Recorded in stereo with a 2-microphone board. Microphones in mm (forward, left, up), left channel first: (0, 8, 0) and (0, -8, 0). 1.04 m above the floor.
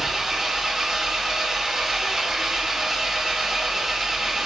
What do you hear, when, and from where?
0.0 s an engine running: 25° right (ahead or behind), 1.0 m